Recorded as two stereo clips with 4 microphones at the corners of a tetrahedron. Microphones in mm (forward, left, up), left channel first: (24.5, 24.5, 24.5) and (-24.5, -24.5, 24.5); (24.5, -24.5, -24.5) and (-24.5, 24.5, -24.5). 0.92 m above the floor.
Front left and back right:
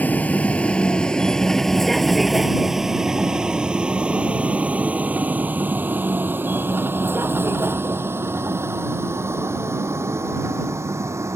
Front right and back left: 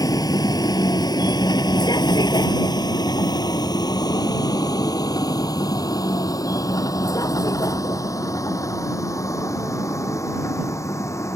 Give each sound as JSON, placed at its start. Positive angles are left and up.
{"t": 0.0, "sound": "a vehicle", "azimuth_deg": -20}